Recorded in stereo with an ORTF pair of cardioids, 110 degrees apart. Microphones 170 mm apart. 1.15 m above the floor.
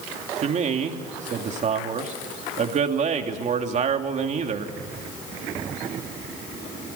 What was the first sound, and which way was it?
A man speaking, 45° right.